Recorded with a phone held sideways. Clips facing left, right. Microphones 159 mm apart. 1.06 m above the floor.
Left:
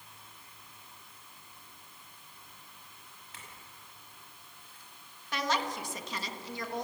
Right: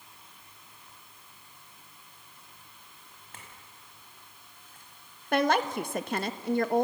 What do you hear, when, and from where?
3.3 s a clink: 50° right (ahead or behind), 5 m
5.3 s a woman speaking: 60° right (ahead or behind), 1.2 m